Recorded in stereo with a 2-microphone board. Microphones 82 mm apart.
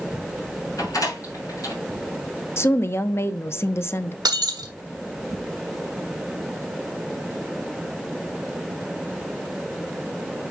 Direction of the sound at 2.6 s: 30° left (ahead or behind).